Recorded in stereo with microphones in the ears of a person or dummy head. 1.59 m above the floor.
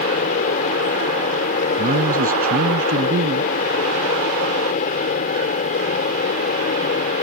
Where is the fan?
50° left (ahead or behind).